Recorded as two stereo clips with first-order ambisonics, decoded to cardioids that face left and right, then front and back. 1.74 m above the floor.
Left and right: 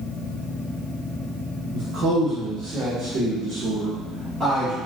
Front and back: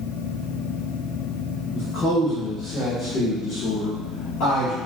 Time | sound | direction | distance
1.7 | a man speaking | 55° right | 1.8 m